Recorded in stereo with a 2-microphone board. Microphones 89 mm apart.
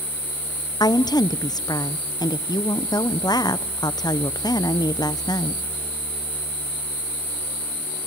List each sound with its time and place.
0.8 s a woman speaking: 50° left (ahead or behind), 0.6 m